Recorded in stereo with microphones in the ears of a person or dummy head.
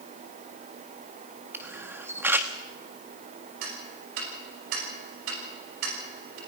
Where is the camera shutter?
10° right (ahead or behind), 1.4 m.